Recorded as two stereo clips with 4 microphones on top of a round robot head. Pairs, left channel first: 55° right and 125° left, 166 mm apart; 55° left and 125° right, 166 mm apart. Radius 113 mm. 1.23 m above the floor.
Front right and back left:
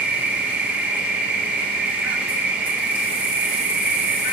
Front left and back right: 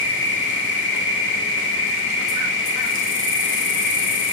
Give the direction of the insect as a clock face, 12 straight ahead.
11 o'clock.